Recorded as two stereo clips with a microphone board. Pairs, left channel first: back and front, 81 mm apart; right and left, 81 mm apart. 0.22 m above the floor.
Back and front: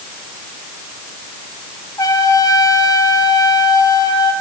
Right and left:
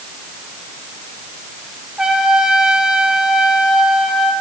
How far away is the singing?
No singing in this recording.